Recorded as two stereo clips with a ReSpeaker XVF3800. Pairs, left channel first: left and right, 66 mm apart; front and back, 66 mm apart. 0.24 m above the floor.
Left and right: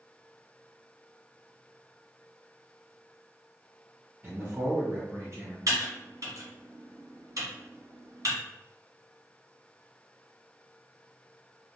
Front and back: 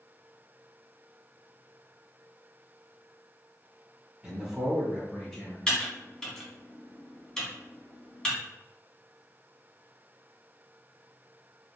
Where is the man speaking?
110° right, 1.5 m; by 5.6 s 75° right, 1.7 m.